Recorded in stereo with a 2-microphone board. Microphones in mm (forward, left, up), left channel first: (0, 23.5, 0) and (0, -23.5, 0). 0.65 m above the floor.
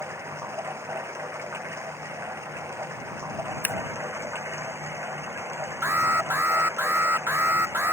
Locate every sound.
0.0 s running water: 85° right
3.6 s scissors: 50° left (ahead or behind)
5.8 s an alarm: 60° right (ahead or behind)